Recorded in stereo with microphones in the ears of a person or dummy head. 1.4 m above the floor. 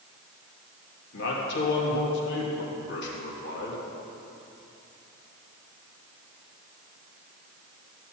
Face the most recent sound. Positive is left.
turn(degrees=70)  # may be behind; listen again after turning